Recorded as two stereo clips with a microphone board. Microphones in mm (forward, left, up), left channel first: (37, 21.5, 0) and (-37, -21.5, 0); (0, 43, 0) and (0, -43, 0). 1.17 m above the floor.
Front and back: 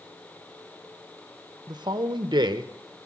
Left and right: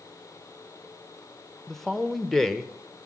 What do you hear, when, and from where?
1.7 s a man speaking: straight behind, 0.8 m